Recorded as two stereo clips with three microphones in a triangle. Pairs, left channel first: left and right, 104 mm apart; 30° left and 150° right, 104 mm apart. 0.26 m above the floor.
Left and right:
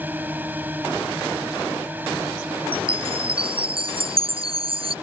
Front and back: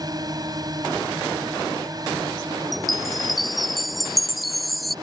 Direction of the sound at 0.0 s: 150° right.